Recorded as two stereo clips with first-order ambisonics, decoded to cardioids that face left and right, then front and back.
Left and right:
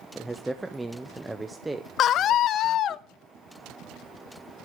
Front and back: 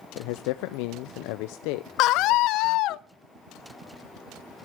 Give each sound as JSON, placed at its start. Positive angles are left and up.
{"t": 0.1, "sound": "a man speaking", "azimuth_deg": -5, "distance_m": 0.6}
{"t": 2.0, "sound": "a scream", "azimuth_deg": 35, "distance_m": 0.8}